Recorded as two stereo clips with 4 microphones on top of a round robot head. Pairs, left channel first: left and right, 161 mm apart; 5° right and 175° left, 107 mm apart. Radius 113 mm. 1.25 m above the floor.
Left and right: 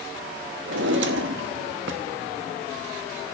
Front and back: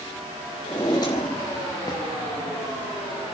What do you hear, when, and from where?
0.7 s a drawer: 75° right, 1.2 m